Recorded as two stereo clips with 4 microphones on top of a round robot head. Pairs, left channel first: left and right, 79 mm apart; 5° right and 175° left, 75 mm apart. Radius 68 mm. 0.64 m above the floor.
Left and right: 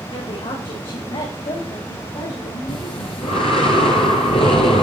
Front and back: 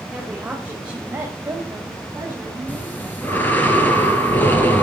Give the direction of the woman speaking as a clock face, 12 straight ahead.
9 o'clock.